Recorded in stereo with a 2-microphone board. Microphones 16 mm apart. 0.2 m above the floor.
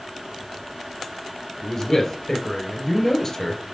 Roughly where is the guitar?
No guitar in this recording.